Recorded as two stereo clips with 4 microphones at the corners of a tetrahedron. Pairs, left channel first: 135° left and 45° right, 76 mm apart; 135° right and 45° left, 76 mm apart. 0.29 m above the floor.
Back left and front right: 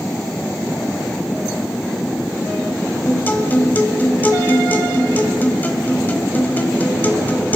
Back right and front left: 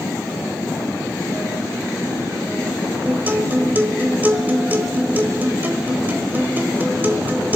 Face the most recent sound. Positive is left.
turn(degrees=90)